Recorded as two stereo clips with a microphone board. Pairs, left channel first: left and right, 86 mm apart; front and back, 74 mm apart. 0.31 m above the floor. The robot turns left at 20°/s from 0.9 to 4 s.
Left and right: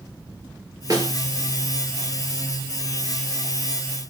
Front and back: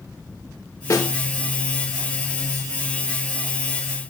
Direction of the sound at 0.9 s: 40° right.